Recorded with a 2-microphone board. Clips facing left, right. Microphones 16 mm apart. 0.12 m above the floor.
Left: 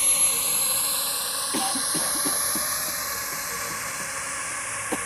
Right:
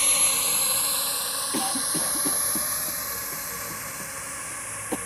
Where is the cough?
5° left (ahead or behind).